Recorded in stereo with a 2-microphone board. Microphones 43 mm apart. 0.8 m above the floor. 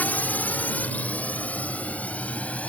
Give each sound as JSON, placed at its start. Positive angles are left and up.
{"t": 0.0, "sound": "a drone", "side_deg": 40}